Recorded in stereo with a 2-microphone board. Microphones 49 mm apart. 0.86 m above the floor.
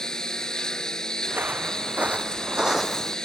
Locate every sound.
0.0 s a lawn mower: 15° left (ahead or behind)
1.3 s footsteps: 40° right (ahead or behind); by 3.2 s 5° left (ahead or behind)